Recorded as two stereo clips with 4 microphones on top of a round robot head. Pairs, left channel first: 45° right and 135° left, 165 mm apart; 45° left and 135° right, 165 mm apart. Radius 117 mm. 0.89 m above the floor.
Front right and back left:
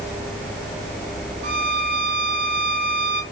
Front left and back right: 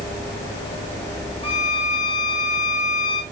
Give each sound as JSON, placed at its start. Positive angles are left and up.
{"t": 1.4, "sound": "a violin", "azimuth_deg": 105, "distance_m": 2.0}